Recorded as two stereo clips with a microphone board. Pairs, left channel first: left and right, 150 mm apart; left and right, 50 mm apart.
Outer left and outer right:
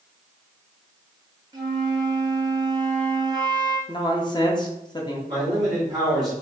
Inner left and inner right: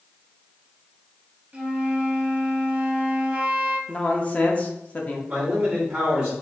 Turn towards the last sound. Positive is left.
turn(degrees=-25)  # may be behind; listen again after turning